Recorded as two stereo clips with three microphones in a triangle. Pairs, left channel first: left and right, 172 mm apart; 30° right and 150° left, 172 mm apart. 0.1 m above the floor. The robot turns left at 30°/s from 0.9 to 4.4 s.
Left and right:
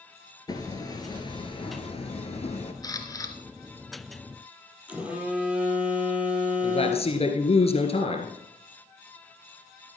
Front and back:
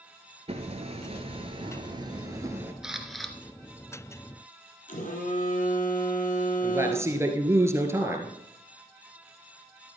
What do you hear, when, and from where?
0.5 s hammering: 140° left, 1.3 m; by 2.7 s 85° left, 1.3 m
2.8 s a camera shutter: 70° left, 1.3 m; by 3.4 s 55° left, 1.3 m
4.9 s a phone buzzing: 10° right, 2 m
6.6 s a man speaking: 85° left, 1.7 m